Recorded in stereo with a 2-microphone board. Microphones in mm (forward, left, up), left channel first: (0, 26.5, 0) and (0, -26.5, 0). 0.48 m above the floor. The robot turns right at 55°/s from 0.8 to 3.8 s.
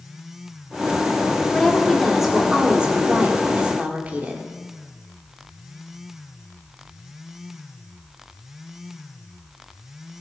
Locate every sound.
1.5 s a woman speaking: 10° left (ahead or behind), 1.3 m; by 4.5 s 30° right (ahead or behind), 1.3 m